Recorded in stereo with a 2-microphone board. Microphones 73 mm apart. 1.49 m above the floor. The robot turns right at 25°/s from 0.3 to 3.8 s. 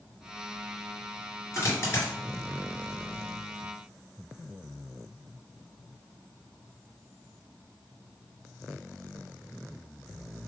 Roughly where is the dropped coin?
Left.